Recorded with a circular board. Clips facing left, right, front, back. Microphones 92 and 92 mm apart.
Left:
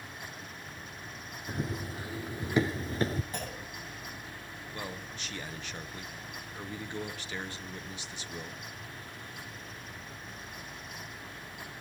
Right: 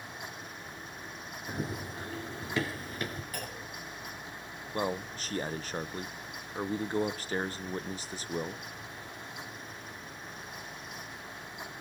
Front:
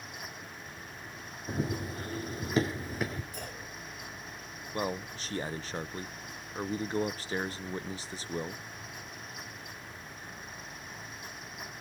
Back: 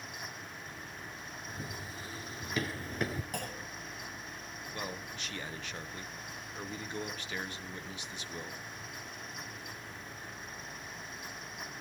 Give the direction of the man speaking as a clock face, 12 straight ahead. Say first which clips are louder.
Right 9 dB, front 8 dB; 2 o'clock.